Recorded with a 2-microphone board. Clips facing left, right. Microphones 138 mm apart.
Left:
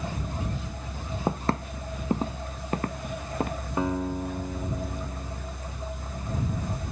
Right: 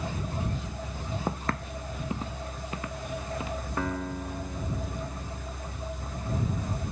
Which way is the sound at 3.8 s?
20° left (ahead or behind).